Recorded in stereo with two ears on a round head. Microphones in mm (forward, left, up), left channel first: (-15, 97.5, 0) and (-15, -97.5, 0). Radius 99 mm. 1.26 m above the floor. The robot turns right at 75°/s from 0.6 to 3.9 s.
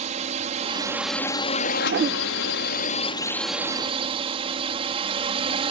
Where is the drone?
35° right; by 5.7 s 150° right.